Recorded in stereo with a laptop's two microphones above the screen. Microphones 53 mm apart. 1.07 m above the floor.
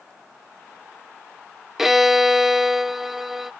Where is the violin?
5° right (ahead or behind).